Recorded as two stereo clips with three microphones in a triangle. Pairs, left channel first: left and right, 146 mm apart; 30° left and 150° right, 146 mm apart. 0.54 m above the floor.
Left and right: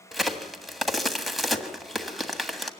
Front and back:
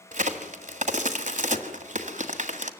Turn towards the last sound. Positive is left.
turn(degrees=180)